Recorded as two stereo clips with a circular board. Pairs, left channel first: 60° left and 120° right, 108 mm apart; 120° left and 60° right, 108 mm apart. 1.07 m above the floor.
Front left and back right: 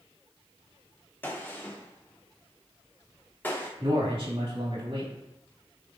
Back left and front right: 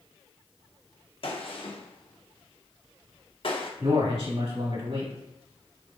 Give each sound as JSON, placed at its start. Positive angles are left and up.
{"t": 1.2, "sound": "a gunshot", "azimuth_deg": 130, "distance_m": 0.7}
{"t": 3.8, "sound": "a man speaking", "azimuth_deg": -85, "distance_m": 1.8}